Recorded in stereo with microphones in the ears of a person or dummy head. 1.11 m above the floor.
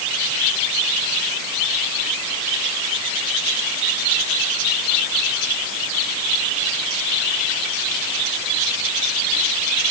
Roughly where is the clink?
I don't hear a clink.